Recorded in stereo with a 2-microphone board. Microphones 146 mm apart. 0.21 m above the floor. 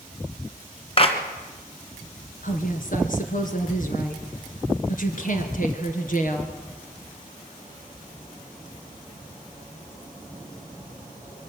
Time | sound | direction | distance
1.0 | a clap | 40° left (ahead or behind) | 2.0 m
2.4 | a woman speaking | 60° left (ahead or behind) | 2.5 m